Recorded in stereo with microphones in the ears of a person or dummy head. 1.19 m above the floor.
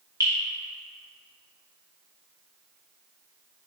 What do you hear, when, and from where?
0.2 s dripping: 15° right (ahead or behind), 1.6 m